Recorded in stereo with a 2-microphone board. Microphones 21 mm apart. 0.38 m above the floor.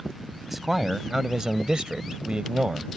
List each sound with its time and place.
0.5 s a man speaking: 10° right (ahead or behind); by 2.9 s 55° right (ahead or behind)